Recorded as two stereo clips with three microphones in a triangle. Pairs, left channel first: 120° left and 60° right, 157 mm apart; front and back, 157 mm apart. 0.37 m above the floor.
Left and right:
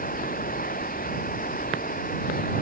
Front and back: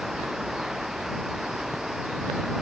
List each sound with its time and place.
0.0 s running water: 90° left